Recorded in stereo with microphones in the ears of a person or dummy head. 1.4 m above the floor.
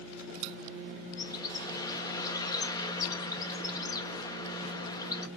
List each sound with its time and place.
1.2 s a bird: 20° left (ahead or behind), 0.6 m